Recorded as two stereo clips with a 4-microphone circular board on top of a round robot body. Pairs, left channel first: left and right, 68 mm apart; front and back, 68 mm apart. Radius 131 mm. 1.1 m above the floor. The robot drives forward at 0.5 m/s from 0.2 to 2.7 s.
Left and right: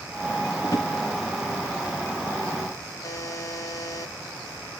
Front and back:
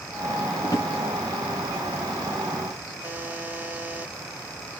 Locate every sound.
0.6 s a drawer: 40° left, 0.6 m; by 0.9 s 60° left, 0.5 m
3.0 s a buzzer: 115° left, 1.3 m